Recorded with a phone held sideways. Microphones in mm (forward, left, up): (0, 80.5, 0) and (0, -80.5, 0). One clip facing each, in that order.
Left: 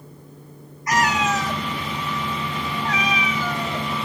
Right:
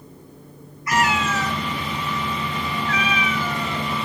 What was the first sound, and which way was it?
A cat meowing, 45° left (ahead or behind).